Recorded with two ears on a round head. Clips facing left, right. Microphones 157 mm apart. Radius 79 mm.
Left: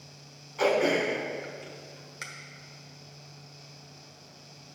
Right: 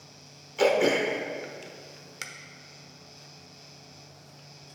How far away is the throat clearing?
About 1.1 m.